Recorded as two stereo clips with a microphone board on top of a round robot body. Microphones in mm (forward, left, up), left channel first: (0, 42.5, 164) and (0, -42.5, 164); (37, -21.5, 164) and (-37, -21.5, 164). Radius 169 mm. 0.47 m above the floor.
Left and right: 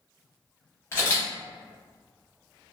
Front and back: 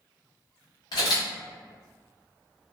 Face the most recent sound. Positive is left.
turn(degrees=30)